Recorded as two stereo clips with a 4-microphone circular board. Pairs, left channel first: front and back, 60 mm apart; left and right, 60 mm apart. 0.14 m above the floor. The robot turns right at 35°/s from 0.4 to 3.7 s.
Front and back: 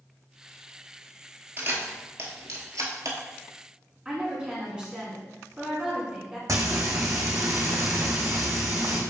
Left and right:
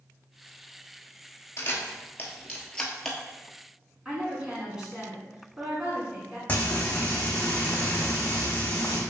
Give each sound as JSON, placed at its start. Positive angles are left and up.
{"t": 1.6, "sound": "a camera shutter", "azimuth_deg": 125, "distance_m": 0.9}
{"t": 4.0, "sound": "a woman speaking", "azimuth_deg": -145, "distance_m": 1.4}
{"t": 6.5, "sound": "frying", "azimuth_deg": 160, "distance_m": 1.5}